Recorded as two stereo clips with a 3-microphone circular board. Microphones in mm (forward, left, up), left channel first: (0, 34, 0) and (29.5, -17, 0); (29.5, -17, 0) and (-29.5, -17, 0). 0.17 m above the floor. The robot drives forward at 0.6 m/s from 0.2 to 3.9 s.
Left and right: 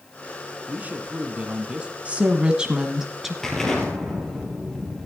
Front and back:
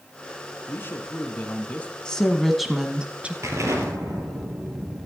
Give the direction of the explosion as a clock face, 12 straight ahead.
5 o'clock.